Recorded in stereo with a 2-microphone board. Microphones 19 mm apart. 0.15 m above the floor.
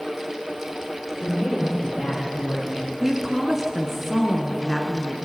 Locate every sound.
1.2 s a man speaking: 20° left (ahead or behind), 5 m
3.0 s a woman speaking: 5° right (ahead or behind), 1.6 m